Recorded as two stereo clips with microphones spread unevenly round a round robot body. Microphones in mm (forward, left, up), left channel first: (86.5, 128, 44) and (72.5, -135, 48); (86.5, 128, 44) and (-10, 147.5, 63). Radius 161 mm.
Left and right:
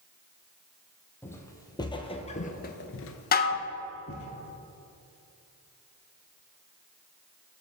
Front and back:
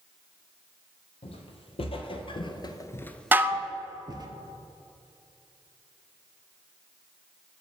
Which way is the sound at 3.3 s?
90° left.